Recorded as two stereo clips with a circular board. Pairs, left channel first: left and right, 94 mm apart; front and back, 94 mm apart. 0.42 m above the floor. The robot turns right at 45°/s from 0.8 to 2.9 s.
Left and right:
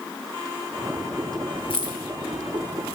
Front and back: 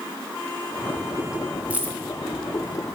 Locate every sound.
1.7 s keys jangling: 105° left, 1.3 m; by 1.9 s 115° left, 1.3 m